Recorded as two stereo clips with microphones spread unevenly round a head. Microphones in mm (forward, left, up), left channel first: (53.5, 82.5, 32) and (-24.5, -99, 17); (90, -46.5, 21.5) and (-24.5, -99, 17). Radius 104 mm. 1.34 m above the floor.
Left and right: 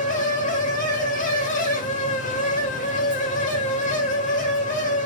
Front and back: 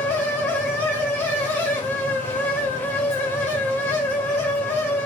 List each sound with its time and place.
0.0 s a fan: 95° left, 1.0 m